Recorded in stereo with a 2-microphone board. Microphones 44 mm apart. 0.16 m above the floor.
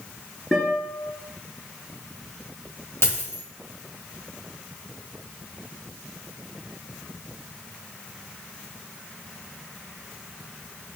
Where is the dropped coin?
65° left (ahead or behind), 2.0 m.